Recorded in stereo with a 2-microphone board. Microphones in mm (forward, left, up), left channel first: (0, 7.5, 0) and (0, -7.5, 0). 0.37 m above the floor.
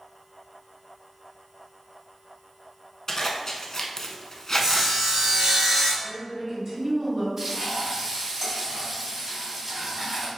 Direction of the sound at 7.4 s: 30° right (ahead or behind).